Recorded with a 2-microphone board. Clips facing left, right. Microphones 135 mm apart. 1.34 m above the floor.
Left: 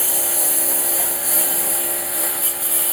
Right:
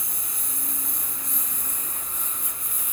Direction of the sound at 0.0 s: 80° left.